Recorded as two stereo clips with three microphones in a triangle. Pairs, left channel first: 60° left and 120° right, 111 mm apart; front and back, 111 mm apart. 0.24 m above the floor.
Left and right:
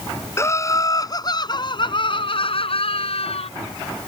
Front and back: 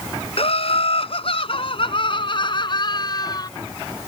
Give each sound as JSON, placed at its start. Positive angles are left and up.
{"t": 0.4, "sound": "laughter", "azimuth_deg": 0}